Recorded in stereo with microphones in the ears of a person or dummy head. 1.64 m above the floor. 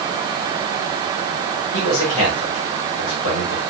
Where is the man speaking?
90° left, 6.5 m.